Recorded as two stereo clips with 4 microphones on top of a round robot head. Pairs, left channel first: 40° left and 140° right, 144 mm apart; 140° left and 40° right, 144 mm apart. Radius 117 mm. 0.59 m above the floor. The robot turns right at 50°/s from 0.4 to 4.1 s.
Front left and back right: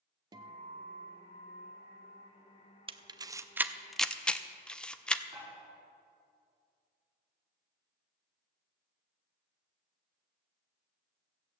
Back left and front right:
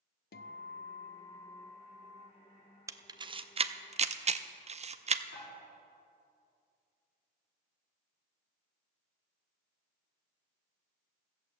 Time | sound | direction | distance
0.3 | a guitar | 155° left | 0.5 m
2.9 | a camera shutter | 100° right | 0.7 m
5.3 | dishes clattering | 165° left | 4.5 m